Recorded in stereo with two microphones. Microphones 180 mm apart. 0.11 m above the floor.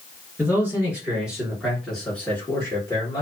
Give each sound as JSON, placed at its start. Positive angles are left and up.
{"t": 0.4, "sound": "a man speaking", "side_deg": -15, "distance_m": 2.0}